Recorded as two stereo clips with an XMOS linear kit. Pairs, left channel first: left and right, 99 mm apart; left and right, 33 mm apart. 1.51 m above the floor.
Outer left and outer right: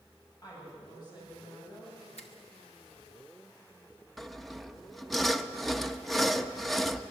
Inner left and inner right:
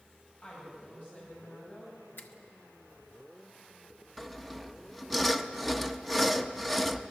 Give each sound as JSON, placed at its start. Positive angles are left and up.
{"t": 0.4, "sound": "a woman speaking", "side_deg": 40, "distance_m": 10.0}
{"t": 2.2, "sound": "a finger snap", "side_deg": 80, "distance_m": 1.6}
{"t": 4.2, "sound": "sawing", "side_deg": 0, "distance_m": 0.8}